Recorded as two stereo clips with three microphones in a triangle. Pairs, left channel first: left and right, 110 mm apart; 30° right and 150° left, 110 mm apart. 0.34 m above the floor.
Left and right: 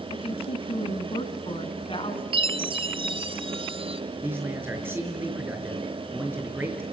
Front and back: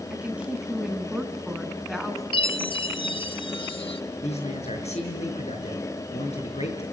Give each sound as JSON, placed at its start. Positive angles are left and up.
{"t": 0.1, "sound": "a woman speaking", "azimuth_deg": 75, "distance_m": 2.5}
{"t": 2.3, "sound": "a chime", "azimuth_deg": -60, "distance_m": 0.7}
{"t": 4.2, "sound": "a man speaking", "azimuth_deg": -20, "distance_m": 5.5}